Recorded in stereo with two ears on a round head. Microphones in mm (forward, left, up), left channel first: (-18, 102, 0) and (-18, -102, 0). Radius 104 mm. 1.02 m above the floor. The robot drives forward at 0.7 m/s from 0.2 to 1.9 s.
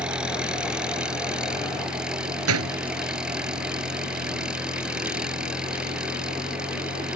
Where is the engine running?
5° right (ahead or behind).